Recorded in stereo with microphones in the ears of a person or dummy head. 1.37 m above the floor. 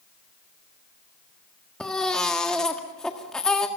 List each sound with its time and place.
1.8 s a baby crying: 5° left (ahead or behind), 1.7 m